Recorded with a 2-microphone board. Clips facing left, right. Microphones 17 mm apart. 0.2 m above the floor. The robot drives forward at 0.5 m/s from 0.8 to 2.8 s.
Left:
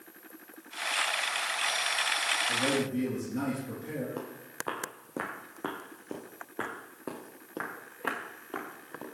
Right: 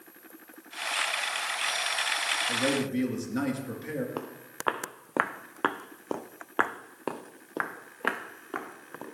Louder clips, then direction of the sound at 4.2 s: Right 1 dB; 40° right (ahead or behind).